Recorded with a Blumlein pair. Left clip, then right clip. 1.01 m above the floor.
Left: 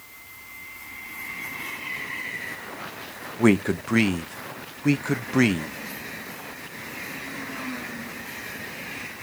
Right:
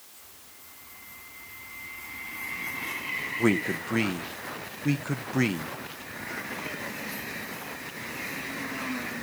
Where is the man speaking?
20° left, 0.7 m.